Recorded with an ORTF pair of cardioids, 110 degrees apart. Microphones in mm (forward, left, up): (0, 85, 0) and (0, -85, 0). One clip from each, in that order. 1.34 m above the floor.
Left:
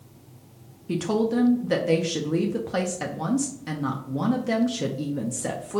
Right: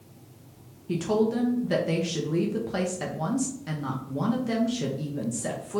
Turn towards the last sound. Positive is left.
turn(degrees=15)